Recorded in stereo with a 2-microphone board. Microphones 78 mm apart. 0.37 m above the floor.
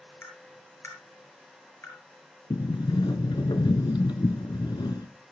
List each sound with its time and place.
0.2 s tapping: 35° left (ahead or behind), 5.5 m
2.5 s a sliding door: 80° left, 0.9 m